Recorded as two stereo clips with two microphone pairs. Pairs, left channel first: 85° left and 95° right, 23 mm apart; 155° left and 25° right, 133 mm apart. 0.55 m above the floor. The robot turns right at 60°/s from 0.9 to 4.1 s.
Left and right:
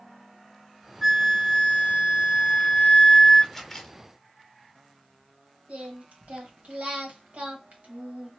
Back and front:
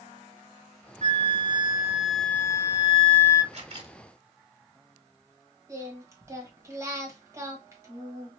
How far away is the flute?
About 0.8 m.